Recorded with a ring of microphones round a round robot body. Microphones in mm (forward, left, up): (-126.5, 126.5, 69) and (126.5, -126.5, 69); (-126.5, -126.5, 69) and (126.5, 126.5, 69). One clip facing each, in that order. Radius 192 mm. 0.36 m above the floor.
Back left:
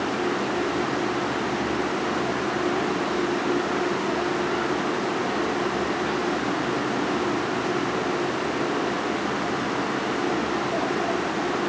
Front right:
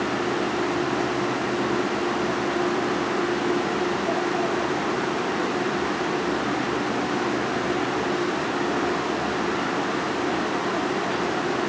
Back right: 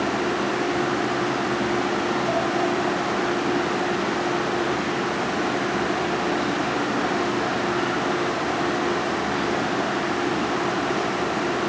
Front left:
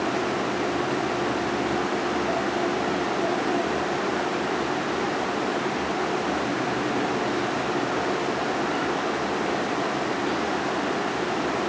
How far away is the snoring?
No snoring in this recording.